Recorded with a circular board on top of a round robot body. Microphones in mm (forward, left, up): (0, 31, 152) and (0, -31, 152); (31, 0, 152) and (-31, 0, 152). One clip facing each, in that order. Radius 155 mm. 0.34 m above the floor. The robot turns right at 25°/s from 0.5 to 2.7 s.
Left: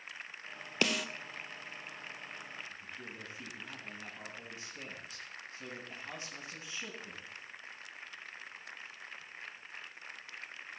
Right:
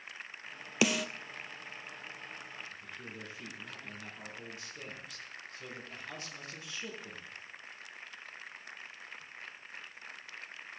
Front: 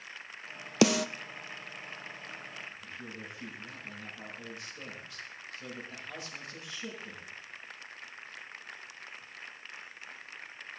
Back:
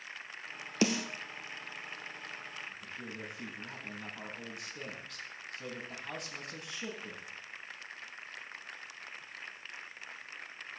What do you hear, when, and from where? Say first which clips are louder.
0.8 s a snare drum: right 3 dB, front 6 dB; 5° right, 0.5 m; by 1.1 s 5° left, 0.5 m
2.7 s a man speaking: even, even; 155° left, 5 m